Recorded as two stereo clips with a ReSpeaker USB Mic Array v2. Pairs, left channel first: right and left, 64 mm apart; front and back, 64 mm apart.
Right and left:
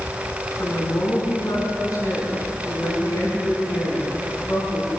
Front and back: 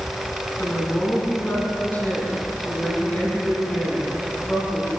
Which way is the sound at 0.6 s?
60° right.